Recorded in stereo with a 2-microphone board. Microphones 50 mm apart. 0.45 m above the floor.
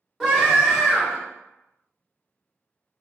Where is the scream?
5° right (ahead or behind), 1.8 m.